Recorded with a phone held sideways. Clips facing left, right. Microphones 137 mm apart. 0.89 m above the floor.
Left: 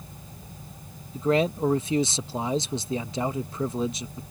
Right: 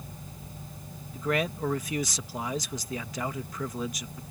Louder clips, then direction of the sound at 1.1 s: Left 6 dB; 25° left (ahead or behind).